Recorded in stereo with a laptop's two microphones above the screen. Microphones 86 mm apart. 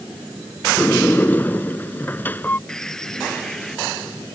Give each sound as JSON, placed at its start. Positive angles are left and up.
{"t": 0.8, "sound": "a sliding door", "side_deg": 20}
{"t": 2.7, "sound": "a bird", "side_deg": 5}